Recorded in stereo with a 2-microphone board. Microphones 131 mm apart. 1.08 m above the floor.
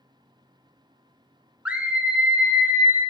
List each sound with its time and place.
1.6 s a scream: 10° right (ahead or behind), 0.5 m; by 3.0 s 5° right (ahead or behind), 1.3 m